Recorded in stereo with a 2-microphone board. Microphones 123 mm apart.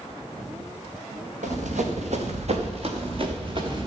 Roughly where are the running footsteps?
Right.